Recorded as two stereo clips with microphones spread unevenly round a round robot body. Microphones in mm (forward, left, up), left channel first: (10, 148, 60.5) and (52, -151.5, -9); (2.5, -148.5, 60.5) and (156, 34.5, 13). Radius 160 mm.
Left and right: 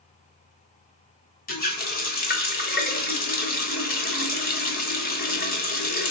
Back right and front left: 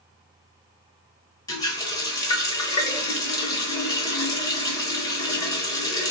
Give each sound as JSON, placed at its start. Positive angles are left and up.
{"t": 1.5, "sound": "a running tap", "azimuth_deg": 150, "distance_m": 0.8}